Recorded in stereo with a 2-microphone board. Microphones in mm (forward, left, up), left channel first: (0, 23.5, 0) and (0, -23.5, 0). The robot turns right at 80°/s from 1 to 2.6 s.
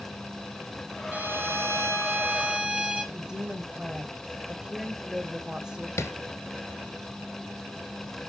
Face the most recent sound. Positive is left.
turn(degrees=70)  # may be behind; listen again after turning